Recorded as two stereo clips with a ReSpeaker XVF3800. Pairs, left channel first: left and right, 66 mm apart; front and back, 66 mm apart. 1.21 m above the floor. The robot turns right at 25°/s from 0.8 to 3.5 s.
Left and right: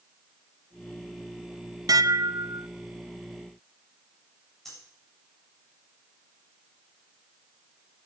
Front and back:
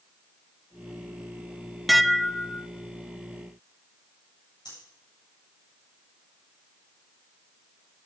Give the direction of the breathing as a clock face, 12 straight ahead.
12 o'clock.